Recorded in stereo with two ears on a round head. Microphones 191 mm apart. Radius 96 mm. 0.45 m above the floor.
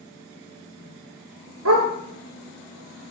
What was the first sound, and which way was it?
A dog barking, 85° right.